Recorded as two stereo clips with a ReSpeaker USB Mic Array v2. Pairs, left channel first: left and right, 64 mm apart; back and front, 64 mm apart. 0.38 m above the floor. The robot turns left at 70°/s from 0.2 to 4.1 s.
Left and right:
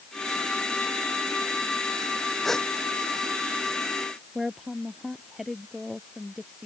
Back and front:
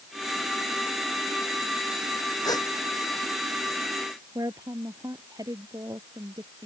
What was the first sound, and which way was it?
A gasp, straight behind.